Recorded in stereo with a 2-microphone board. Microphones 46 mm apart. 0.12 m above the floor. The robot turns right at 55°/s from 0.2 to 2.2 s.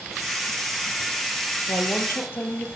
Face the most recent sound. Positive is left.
turn(degrees=50)  # may be behind; listen again after turning